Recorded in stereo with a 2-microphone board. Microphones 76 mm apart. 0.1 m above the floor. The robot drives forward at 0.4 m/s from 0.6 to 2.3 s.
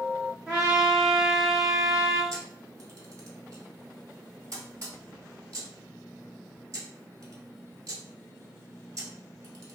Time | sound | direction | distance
0.5 | a trumpet | 10° right (ahead or behind) | 1.0 m
2.3 | a camera shutter | 45° right (ahead or behind) | 1.1 m